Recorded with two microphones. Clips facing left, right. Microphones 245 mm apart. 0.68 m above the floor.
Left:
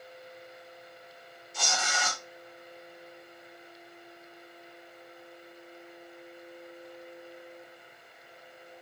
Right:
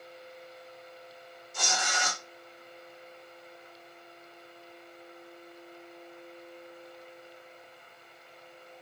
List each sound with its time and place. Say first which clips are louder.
1.5 s tearing paper: even; 50° right (ahead or behind), 1.7 m